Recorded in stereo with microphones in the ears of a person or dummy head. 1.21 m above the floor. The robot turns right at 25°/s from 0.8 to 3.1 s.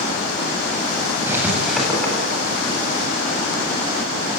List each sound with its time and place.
1.3 s writing: 10° right (ahead or behind), 9 m; by 2.1 s 10° left (ahead or behind), 9 m